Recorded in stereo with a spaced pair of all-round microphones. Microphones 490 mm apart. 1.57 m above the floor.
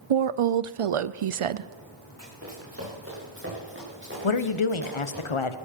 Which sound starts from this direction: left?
A woman speaking, at 4.2 s.